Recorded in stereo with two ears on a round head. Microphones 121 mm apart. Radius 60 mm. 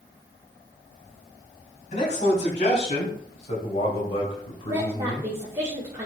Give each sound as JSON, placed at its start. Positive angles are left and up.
{"t": 1.9, "sound": "a man speaking", "side_deg": 60, "distance_m": 4.0}
{"t": 4.7, "sound": "a woman speaking", "side_deg": -20, "distance_m": 1.7}